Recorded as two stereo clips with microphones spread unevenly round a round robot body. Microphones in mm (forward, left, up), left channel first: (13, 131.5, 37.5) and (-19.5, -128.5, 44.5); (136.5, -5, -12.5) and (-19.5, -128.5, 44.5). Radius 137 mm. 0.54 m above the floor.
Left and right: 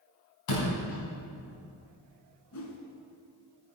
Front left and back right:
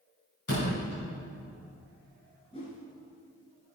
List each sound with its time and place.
0.5 s a door slam: 90° left, 4 m
2.5 s a whoosh: 115° left, 1.4 m